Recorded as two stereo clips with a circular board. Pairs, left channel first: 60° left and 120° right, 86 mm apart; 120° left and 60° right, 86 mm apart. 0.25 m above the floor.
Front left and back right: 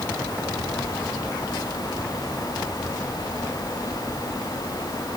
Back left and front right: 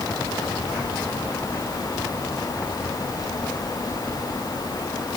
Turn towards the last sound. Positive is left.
No sound to turn to.